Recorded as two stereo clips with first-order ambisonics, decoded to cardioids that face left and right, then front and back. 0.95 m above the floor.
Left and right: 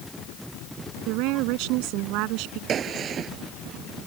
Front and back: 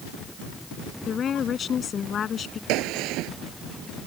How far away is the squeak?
No squeak in this recording.